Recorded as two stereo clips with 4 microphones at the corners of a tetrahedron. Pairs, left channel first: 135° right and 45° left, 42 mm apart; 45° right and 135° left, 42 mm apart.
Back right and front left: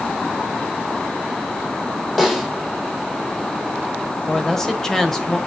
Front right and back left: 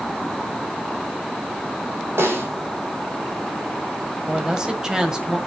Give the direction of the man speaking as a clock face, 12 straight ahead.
6 o'clock.